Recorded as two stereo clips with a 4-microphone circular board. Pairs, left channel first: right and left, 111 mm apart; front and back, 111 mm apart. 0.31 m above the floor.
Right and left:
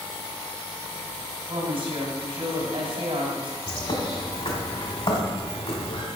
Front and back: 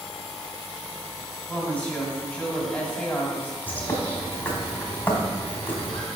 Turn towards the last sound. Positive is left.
turn(degrees=-70)